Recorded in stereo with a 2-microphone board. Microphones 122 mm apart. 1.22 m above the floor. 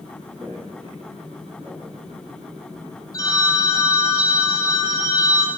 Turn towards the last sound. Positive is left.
turn(degrees=30)  # may be behind; listen again after turning